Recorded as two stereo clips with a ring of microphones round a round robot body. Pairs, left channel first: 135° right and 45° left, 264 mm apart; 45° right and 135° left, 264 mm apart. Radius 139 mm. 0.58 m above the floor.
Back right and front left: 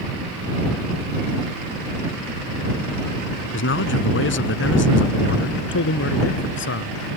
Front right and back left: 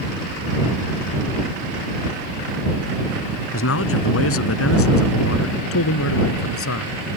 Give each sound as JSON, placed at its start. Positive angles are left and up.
{"t": 3.5, "sound": "a man speaking", "azimuth_deg": -85}